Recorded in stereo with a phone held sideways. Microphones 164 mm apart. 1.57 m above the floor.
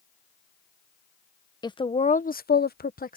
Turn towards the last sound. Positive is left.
turn(degrees=60)  # may be behind; listen again after turning